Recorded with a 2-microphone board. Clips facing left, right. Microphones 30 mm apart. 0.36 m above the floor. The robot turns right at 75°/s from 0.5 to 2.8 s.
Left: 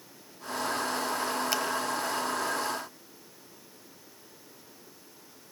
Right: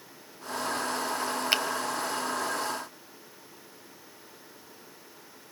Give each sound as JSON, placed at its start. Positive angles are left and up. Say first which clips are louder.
{"t": 1.5, "sound": "a finger snap", "louder": "right 7 dB", "side_deg": -40, "distance_m": 1.3}